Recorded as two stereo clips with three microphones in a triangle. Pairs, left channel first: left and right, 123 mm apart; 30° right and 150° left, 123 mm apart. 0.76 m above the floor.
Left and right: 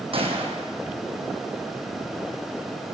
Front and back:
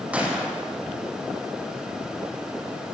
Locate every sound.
0.1 s a gunshot: 130° right, 6 m